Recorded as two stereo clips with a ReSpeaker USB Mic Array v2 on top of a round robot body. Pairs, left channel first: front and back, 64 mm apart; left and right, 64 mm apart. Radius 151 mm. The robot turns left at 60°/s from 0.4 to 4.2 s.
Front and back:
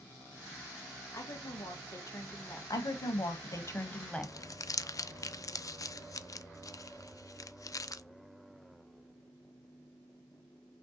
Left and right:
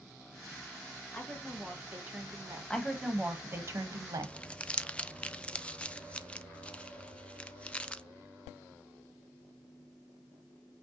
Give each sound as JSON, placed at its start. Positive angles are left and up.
{"t": 1.1, "sound": "a woman speaking", "azimuth_deg": 25, "distance_m": 1.6}
{"t": 2.7, "sound": "a woman speaking", "azimuth_deg": 15, "distance_m": 1.3}
{"t": 4.2, "sound": "crumpling", "azimuth_deg": 20, "distance_m": 0.6}